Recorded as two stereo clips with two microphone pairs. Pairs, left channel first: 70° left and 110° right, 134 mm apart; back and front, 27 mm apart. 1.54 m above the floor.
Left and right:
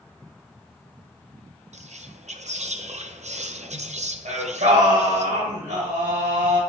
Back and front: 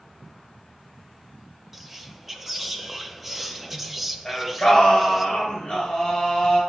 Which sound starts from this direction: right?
Whispering, at 1.7 s.